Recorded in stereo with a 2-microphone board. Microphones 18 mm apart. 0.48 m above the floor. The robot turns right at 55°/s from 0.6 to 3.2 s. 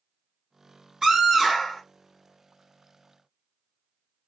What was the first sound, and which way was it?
A scream, 50° right.